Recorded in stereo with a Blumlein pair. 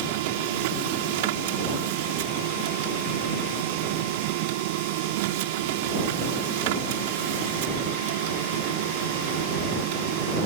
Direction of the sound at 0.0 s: 50° right.